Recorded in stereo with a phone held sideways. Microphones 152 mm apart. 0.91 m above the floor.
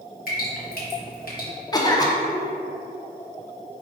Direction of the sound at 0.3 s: 65° left (ahead or behind).